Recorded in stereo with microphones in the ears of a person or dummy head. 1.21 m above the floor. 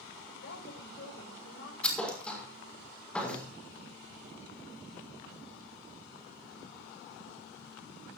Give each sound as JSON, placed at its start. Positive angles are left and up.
{"t": 0.3, "sound": "a woman speaking", "side_deg": 70, "distance_m": 5.0}
{"t": 1.8, "sound": "a thud", "side_deg": 5, "distance_m": 5.5}